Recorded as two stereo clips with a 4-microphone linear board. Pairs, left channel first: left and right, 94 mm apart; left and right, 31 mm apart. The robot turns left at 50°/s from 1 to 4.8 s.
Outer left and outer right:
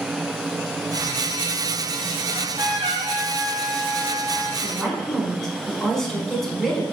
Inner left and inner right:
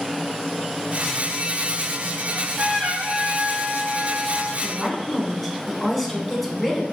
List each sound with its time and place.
2.3 s a trumpet: 35° right, 1.8 m; by 4.5 s 145° right, 1.8 m
4.6 s a woman speaking: 10° left (ahead or behind), 1.2 m; by 6.8 s 5° left (ahead or behind), 1.2 m